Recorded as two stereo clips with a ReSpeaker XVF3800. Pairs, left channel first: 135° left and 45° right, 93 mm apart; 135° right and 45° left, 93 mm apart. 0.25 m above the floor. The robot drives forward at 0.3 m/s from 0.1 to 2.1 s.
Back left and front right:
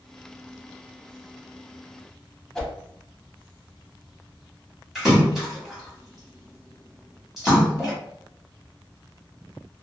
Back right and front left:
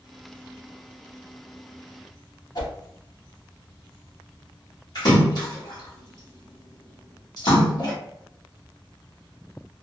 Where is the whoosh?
145° right, 0.8 m.